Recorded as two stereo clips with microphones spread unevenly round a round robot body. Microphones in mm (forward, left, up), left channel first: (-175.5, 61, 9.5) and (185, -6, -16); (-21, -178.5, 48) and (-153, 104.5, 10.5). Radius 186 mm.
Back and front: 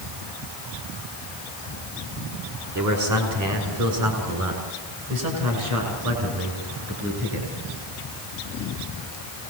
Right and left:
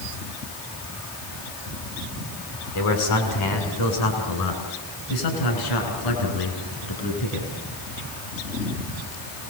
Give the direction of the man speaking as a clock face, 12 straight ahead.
2 o'clock.